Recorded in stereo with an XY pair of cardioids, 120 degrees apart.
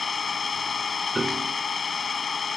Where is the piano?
15° right.